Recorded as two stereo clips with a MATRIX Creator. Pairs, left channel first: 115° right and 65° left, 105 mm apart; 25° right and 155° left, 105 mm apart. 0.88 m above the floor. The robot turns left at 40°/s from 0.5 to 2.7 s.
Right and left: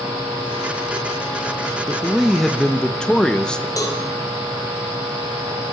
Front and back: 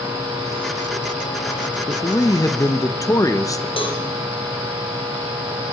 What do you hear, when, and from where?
1.9 s a man speaking: 5° right, 1.0 m; by 3.7 s 35° right, 1.0 m
3.8 s a cowbell: 55° right, 2.5 m